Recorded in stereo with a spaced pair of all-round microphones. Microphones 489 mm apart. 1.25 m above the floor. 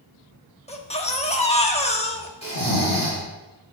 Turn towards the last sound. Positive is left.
turn(degrees=-45)  # may be behind; listen again after turning